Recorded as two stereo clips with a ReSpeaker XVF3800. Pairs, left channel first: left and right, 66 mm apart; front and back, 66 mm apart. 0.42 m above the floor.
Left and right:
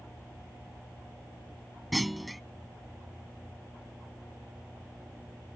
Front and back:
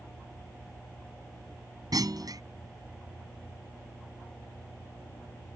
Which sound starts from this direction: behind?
A clunk, at 1.9 s.